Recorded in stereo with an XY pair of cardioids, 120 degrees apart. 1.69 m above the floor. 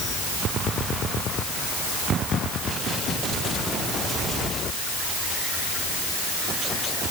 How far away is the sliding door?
No sliding door in this recording.